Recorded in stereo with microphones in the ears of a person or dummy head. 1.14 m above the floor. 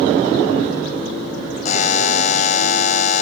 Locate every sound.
1.6 s a buzzer: 40° left (ahead or behind), 0.7 m